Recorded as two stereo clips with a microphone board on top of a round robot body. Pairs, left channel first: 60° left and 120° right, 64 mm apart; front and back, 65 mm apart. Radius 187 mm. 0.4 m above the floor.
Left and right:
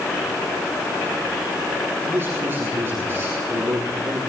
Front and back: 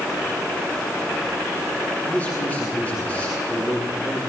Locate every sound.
2.0 s a man speaking: 60° right, 5.5 m